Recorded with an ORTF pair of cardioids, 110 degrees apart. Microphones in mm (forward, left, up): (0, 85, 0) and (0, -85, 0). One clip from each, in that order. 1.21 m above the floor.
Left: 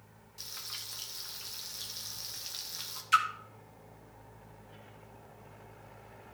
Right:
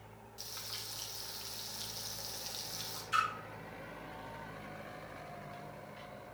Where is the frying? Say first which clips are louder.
Left 2 dB; 15° left, 1.2 m.